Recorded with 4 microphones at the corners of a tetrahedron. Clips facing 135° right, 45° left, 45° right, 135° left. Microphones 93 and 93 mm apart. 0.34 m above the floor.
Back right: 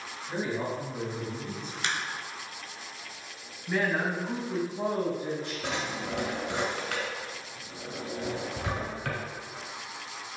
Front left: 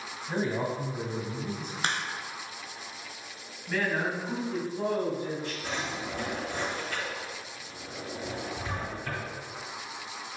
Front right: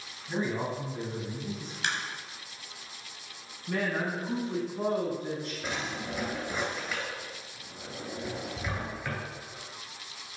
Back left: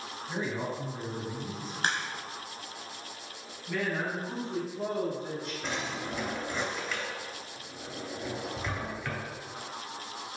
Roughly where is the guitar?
No guitar in this recording.